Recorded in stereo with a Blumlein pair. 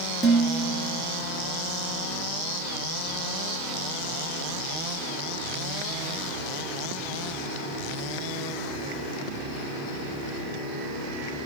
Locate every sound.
0.2 s dishes clattering: straight ahead, 1.5 m